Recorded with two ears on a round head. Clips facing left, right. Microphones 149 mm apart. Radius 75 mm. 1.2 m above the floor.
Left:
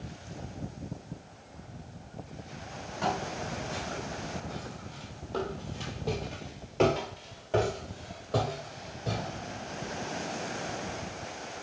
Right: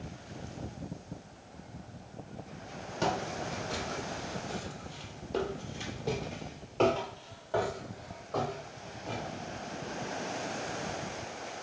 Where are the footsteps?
50° right (ahead or behind), 2.5 m; by 10.4 s 65° left (ahead or behind), 2.5 m.